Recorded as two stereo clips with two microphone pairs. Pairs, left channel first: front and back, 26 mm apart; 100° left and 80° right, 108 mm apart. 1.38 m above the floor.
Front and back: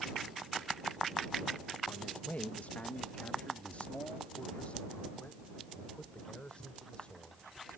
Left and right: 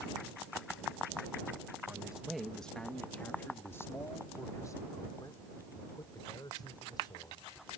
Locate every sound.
1.9 s a man speaking: straight ahead; by 7.5 s 50° left